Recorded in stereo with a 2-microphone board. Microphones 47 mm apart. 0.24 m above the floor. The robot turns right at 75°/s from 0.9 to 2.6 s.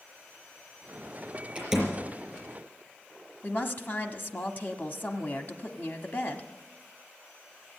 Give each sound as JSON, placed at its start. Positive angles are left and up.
{"t": 1.6, "sound": "a door slam", "side_deg": -20, "distance_m": 5.0}
{"t": 3.4, "sound": "a woman speaking", "side_deg": 45, "distance_m": 1.4}